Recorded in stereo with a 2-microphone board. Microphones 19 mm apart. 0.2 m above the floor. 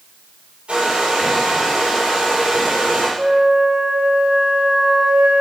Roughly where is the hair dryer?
Right.